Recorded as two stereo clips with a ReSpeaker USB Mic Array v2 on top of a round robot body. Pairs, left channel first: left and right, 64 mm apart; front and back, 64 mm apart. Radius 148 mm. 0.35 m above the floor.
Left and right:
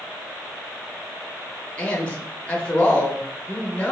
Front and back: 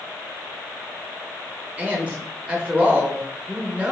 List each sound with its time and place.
1.8 s a man speaking: 140° left, 1.4 m